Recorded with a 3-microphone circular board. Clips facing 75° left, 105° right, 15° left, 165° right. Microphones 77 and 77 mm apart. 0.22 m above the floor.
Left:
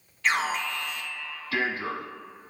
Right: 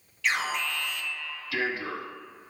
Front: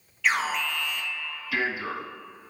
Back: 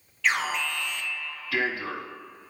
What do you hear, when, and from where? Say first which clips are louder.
0.2 s an alarm: left 2 dB, front 1 dB; 100° left, 2.5 m